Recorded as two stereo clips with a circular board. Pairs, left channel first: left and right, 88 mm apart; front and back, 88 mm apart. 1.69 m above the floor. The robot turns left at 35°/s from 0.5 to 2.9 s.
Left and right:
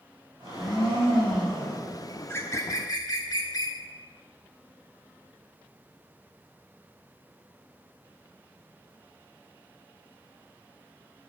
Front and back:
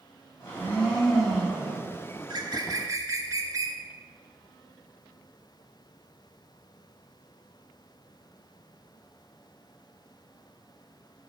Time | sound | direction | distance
0.4 | a blender | 65° right | 3 m
2.2 | a bird | 155° left | 0.9 m